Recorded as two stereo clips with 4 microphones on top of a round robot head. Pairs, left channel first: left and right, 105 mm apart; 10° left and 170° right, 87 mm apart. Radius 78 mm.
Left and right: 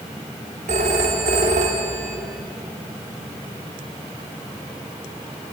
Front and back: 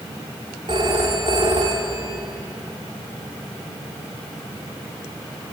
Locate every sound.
0.7 s a phone ringing: 120° right, 2 m